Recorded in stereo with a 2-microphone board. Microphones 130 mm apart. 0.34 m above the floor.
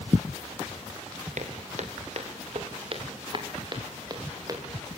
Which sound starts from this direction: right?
Footsteps, at 1.4 s.